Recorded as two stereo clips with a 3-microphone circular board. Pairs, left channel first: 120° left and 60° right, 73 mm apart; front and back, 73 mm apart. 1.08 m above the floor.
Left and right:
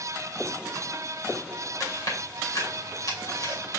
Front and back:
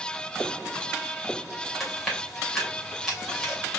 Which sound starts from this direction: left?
Chewing, at 1.8 s.